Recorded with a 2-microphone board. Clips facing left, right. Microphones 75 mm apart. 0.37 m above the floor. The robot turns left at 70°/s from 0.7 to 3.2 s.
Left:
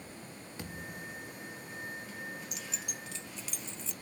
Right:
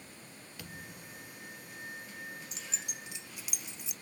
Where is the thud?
25° left, 2.5 m; by 1.4 s 20° right, 2.5 m.